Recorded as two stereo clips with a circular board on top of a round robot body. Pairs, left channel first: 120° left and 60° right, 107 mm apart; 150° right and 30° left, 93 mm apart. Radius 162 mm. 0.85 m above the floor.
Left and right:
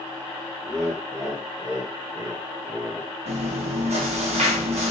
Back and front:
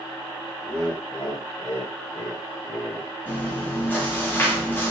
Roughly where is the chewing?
Right.